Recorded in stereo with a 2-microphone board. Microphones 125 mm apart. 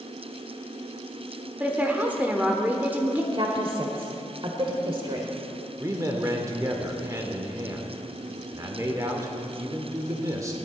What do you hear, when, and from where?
1.6 s a woman speaking: 15° right (ahead or behind), 1.0 m
3.3 s a woman speaking: 45° right (ahead or behind), 1.5 m
5.8 s a man speaking: 25° right (ahead or behind), 1.1 m